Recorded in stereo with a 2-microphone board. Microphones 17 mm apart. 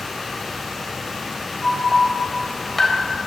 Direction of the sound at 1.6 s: 10° left (ahead or behind).